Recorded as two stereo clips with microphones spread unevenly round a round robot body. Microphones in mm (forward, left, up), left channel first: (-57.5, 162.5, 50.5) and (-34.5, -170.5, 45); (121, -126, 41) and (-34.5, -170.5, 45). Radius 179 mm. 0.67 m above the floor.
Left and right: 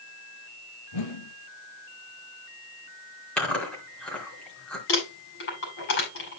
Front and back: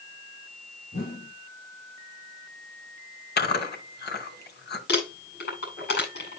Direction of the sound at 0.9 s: 70° left.